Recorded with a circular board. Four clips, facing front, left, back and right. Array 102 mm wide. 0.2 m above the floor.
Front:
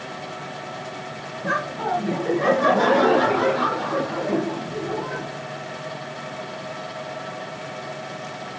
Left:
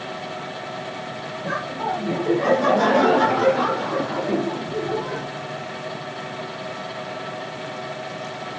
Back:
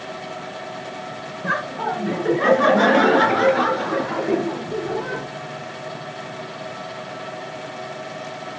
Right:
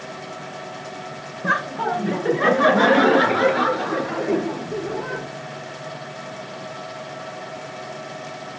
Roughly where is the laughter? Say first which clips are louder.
Right 4 dB, back 1 dB; right.